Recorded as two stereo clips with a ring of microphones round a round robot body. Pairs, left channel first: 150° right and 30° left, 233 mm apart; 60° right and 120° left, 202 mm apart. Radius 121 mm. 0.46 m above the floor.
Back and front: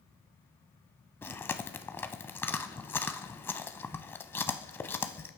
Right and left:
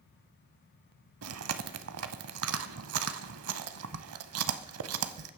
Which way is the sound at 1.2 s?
130° left.